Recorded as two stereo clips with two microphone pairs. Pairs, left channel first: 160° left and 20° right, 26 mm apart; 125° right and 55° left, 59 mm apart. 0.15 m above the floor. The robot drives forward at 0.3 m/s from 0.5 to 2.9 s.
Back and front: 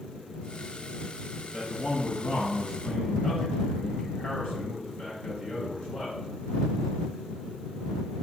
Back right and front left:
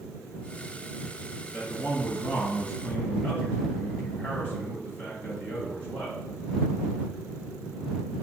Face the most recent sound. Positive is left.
turn(degrees=180)